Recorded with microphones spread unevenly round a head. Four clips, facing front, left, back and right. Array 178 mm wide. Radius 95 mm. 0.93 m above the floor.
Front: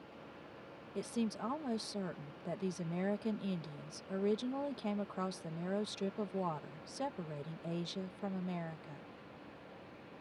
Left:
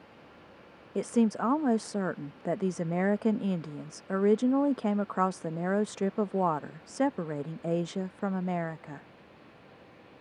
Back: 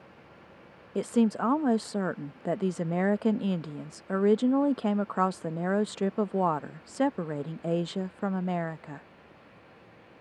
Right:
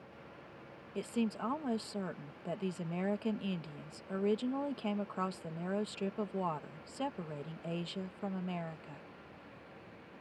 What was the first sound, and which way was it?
A woman speaking, 140° left.